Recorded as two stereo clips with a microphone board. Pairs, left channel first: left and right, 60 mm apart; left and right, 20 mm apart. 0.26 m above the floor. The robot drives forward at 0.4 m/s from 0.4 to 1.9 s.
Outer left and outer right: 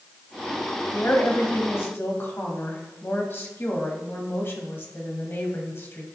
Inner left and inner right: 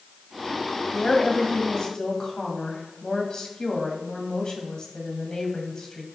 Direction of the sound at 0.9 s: 40° left (ahead or behind).